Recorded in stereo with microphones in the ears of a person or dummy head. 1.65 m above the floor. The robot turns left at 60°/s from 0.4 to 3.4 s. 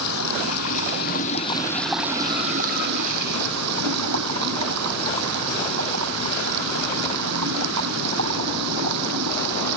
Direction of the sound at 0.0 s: 90° left.